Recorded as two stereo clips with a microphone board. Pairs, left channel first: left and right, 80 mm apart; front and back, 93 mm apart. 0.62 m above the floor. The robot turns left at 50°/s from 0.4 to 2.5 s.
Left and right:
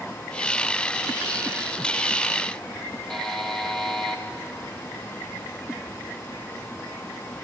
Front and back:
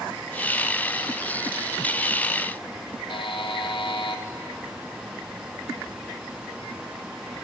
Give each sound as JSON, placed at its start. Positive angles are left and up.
{"t": 3.1, "sound": "a buzzer", "azimuth_deg": 5, "distance_m": 0.8}